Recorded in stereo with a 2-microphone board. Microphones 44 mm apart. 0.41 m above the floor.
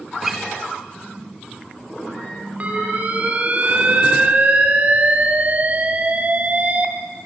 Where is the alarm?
35° right (ahead or behind), 1.7 m.